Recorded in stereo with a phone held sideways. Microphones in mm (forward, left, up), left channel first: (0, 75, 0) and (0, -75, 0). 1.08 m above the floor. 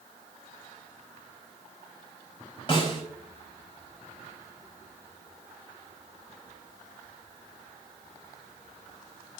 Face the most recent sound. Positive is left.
turn(degrees=35)  # may be behind; listen again after turning